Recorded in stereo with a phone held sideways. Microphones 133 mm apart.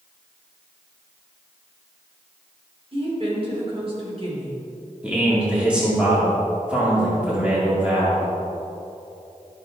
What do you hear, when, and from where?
2.9 s a woman speaking: 45° right (ahead or behind), 3 m
5.0 s a man speaking: 10° right (ahead or behind), 2.5 m